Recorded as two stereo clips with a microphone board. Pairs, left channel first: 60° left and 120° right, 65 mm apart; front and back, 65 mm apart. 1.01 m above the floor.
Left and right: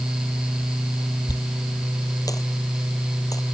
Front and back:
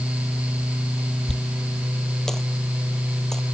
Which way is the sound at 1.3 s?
85° left.